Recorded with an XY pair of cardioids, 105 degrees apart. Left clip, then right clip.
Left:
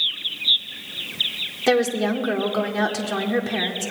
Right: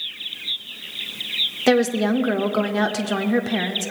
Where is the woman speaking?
25° right, 0.7 m.